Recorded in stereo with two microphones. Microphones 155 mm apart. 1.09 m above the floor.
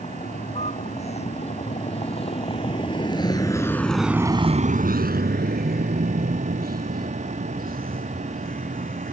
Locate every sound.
0.0 s a vehicle: 50° left (ahead or behind); by 9.1 s 65° right (ahead or behind)